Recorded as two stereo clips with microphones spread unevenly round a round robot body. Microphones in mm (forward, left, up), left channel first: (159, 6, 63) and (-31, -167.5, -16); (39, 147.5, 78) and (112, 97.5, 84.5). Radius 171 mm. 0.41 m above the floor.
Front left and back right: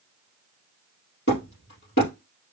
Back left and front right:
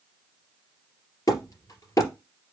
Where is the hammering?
100° left, 3 m.